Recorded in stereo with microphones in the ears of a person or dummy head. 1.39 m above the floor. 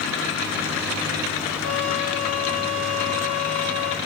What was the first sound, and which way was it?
A trumpet, 80° right.